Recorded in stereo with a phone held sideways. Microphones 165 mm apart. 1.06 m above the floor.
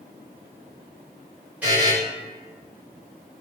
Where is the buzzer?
10° right (ahead or behind), 1.6 m.